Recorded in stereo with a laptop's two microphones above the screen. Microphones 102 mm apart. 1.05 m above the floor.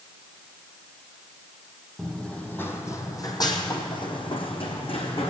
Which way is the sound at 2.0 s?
5° left (ahead or behind).